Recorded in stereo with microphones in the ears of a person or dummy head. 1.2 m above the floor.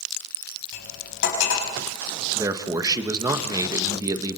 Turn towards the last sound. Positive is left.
turn(degrees=-25)  # may be behind; listen again after turning